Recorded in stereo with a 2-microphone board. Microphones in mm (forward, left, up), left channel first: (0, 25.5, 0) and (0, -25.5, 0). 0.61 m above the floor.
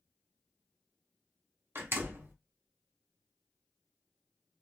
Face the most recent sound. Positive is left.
turn(degrees=-50)  # may be behind; listen again after turning